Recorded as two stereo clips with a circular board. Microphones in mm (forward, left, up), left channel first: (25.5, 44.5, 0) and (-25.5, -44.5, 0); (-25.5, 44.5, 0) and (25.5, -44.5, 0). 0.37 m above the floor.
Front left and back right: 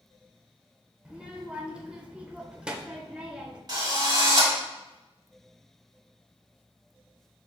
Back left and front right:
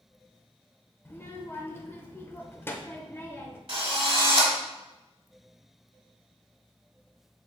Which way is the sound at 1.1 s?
170° left.